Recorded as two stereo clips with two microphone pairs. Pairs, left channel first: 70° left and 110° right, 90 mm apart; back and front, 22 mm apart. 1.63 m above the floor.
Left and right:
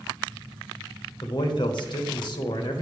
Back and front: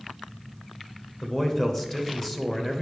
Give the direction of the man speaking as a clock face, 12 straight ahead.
9 o'clock.